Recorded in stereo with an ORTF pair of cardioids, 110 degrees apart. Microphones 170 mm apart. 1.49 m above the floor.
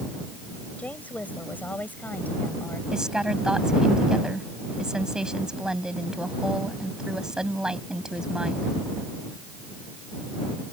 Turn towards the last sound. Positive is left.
turn(degrees=-5)